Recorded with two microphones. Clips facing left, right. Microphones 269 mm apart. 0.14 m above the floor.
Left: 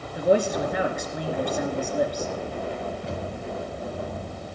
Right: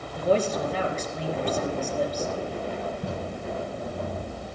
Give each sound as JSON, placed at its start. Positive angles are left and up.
{"t": 0.1, "sound": "a man speaking", "side_deg": 10, "distance_m": 2.5}
{"t": 3.0, "sound": "tape being pulled", "side_deg": -55, "distance_m": 4.5}